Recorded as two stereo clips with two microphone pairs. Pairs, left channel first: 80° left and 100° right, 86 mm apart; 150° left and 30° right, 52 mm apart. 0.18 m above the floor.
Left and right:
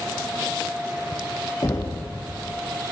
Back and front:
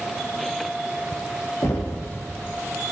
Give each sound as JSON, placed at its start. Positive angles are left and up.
{"t": 1.6, "sound": "knocking", "azimuth_deg": 120, "distance_m": 6.0}